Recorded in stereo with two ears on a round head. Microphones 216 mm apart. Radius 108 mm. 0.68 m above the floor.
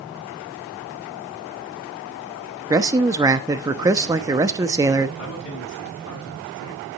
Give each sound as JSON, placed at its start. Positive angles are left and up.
{"t": 2.7, "sound": "a man speaking", "side_deg": -15, "distance_m": 0.9}
{"t": 5.2, "sound": "a man speaking", "side_deg": 55, "distance_m": 6.5}